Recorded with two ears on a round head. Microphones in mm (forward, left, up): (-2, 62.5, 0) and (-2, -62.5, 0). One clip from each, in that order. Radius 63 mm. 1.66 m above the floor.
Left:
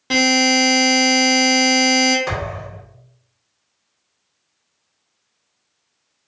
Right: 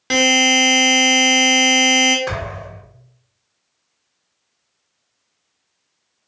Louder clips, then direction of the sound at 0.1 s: Right 2 dB; 30° right (ahead or behind).